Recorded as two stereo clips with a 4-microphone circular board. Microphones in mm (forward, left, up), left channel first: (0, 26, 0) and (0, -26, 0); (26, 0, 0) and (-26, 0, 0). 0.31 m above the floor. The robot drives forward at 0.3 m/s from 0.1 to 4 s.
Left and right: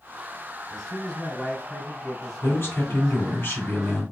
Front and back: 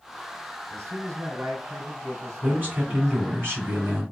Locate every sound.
0.7 s a man speaking: 170° left, 2.5 m
2.4 s a man speaking: 130° left, 2.5 m; by 4.0 s 140° left, 2.5 m